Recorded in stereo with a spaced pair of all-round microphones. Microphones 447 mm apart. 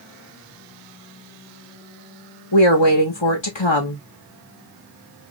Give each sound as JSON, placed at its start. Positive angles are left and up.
{"t": 2.5, "sound": "a woman speaking", "side_deg": 80, "distance_m": 1.6}